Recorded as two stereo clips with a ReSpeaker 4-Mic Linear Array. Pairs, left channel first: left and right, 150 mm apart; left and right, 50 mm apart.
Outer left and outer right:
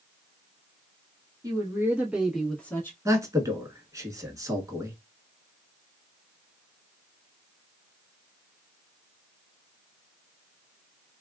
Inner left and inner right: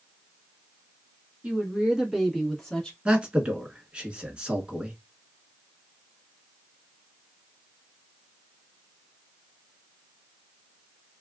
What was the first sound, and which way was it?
A woman speaking, 25° right (ahead or behind).